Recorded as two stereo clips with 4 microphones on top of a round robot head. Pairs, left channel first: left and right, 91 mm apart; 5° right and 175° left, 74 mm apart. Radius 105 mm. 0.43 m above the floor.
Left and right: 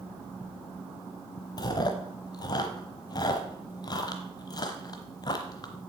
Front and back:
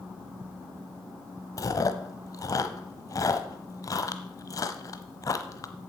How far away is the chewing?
About 0.9 m.